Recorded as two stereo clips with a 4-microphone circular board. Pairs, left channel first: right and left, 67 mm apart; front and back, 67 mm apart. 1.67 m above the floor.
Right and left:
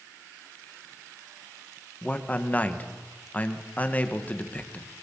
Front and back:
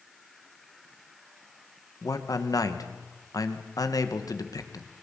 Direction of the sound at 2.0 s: 20° right.